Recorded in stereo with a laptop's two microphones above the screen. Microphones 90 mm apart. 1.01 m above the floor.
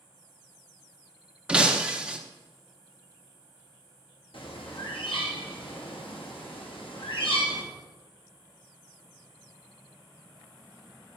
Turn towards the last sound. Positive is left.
turn(degrees=75)  # may be behind; listen again after turning